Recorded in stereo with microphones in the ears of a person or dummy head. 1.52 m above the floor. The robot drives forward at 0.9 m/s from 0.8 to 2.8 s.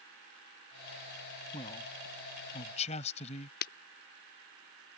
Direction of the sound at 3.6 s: 45° left (ahead or behind).